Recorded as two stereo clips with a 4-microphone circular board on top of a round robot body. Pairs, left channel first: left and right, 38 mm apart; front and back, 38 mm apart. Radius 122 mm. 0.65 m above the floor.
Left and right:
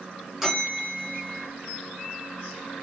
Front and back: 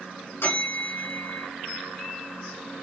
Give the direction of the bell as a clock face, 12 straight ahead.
12 o'clock.